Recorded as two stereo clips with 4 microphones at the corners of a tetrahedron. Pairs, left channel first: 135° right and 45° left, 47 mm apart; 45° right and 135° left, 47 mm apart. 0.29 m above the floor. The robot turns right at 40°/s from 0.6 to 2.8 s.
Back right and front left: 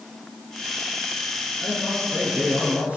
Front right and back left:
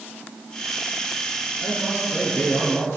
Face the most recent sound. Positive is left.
turn(degrees=-15)